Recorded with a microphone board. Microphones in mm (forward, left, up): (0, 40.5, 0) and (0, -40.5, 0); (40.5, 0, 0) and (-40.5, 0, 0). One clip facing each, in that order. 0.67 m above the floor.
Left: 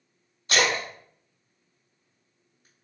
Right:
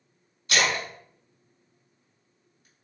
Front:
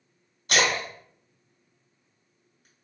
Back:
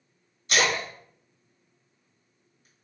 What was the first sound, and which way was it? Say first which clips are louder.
A splash: left 1 dB, front 1 dB; 30° left.